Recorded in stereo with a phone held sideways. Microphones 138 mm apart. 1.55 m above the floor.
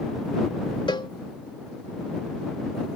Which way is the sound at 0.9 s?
35° left (ahead or behind).